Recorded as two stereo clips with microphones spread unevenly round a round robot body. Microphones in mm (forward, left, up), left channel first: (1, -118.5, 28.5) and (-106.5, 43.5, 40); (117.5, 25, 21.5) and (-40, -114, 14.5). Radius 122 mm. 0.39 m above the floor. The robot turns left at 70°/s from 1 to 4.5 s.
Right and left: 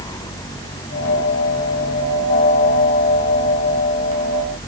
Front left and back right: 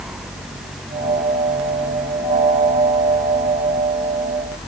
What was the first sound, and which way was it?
Only background noise.